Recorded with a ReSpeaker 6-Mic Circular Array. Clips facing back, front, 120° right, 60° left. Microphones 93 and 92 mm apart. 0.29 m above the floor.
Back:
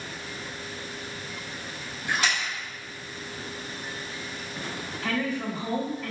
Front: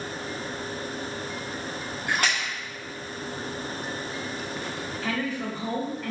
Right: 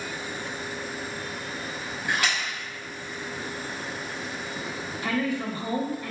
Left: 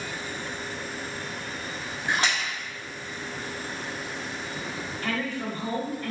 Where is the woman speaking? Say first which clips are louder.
Back 2 dB, right 4 dB; 90° right, 0.9 m.